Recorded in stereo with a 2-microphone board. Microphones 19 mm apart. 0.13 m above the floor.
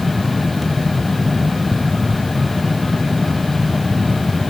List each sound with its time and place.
Only background noise.